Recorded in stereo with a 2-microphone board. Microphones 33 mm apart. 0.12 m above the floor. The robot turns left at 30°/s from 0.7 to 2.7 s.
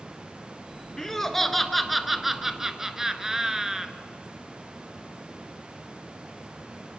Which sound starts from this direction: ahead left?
Laughter, at 1.0 s.